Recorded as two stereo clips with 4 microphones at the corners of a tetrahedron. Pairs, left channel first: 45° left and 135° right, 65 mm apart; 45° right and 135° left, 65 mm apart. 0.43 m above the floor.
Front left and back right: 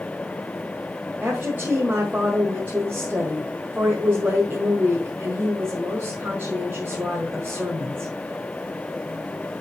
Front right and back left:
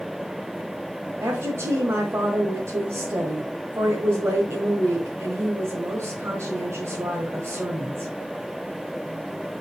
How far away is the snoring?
I don't hear snoring.